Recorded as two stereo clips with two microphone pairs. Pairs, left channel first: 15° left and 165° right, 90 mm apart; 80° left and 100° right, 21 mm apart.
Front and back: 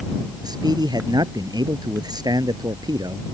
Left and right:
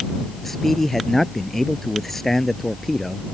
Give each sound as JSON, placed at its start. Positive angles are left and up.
{"t": 0.4, "sound": "a man speaking", "azimuth_deg": 160}